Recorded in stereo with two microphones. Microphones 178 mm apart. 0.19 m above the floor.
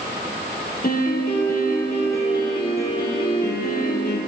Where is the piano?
60° left (ahead or behind), 3.5 m.